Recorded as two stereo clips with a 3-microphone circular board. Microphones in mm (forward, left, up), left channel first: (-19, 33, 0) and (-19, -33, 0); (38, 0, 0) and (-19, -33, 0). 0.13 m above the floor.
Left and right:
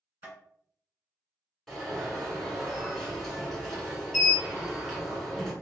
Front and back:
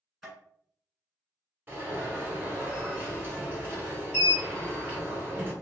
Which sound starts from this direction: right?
Tapping, at 0.2 s.